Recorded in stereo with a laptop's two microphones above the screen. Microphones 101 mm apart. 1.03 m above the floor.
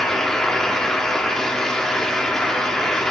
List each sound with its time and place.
0.0 s a fan: 5° left (ahead or behind), 0.7 m